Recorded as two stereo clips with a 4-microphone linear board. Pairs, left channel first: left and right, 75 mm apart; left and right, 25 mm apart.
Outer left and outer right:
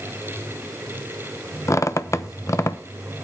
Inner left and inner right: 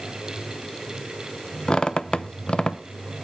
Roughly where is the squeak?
Left.